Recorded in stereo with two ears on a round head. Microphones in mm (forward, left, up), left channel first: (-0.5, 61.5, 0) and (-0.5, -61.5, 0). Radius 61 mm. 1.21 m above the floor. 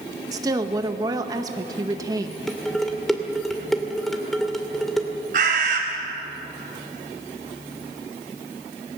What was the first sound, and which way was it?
A woman speaking, 25° right (ahead or behind).